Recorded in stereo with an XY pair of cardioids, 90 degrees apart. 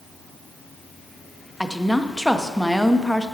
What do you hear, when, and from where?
1.6 s a woman speaking: 5° left, 0.8 m